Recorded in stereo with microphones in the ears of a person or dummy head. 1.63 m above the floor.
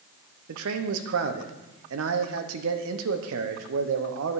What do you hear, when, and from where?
0.5 s a man speaking: 75° right (ahead or behind), 1.0 m